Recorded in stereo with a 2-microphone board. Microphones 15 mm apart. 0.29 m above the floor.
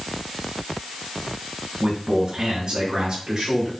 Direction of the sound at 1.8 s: 55° right (ahead or behind).